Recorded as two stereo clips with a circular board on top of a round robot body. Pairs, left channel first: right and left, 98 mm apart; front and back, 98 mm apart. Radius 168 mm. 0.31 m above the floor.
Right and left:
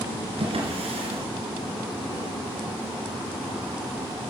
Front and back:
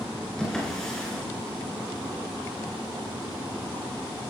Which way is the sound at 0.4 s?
85° left.